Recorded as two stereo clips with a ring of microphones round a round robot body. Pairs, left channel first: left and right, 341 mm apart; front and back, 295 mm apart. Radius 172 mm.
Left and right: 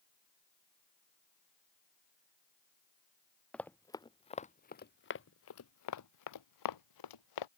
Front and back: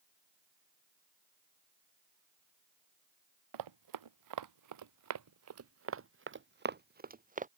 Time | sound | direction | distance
3.5 | running footsteps | 175° left | ?